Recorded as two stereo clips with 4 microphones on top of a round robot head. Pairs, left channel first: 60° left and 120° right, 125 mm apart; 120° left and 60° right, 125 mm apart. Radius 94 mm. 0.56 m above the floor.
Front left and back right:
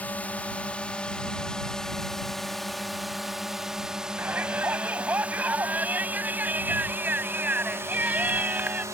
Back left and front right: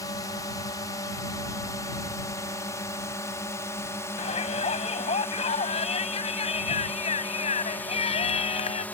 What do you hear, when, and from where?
0.0 s a drone: 125° left; by 8.9 s 170° right
4.2 s a shout: 160° left